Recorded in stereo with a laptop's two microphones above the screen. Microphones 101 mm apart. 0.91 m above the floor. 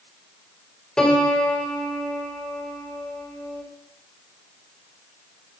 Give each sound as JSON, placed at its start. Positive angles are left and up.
{"t": 1.0, "sound": "a piano", "side_deg": 5, "distance_m": 3.5}